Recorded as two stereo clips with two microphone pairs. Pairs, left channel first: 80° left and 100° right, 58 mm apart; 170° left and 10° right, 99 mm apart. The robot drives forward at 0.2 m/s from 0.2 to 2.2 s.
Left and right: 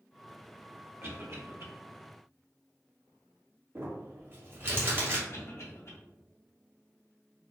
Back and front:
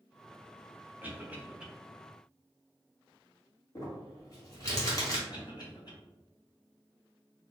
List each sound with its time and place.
1.0 s a cough: 75° right, 1.2 m; by 1.7 s 85° right, 1.1 m
3.8 s crumpling: 140° right, 1.5 m
5.3 s a cough: 125° left, 1.7 m